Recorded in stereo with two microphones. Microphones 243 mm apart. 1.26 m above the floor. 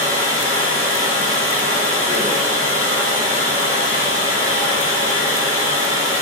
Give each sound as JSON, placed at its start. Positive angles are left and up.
{"t": 0.0, "sound": "running water", "side_deg": 60, "distance_m": 1.0}